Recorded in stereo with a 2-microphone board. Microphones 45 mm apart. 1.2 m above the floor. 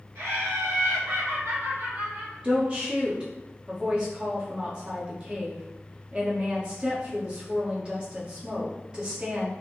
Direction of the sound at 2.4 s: 20° right (ahead or behind).